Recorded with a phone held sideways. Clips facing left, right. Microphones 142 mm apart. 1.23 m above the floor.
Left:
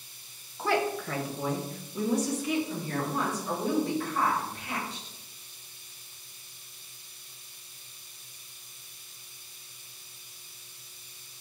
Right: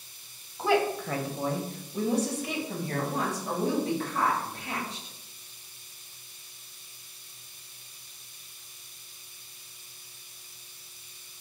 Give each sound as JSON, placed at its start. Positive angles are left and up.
{"t": 0.6, "sound": "a woman speaking", "side_deg": -15, "distance_m": 0.5}